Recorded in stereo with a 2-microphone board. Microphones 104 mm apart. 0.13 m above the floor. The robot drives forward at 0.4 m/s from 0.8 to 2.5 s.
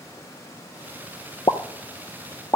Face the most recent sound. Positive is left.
turn(degrees=30)  # may be behind; listen again after turning